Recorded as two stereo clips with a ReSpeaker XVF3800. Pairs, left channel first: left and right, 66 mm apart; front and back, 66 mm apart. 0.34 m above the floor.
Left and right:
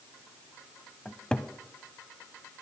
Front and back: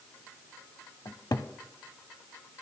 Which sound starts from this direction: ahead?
A cupboard door, at 1.1 s.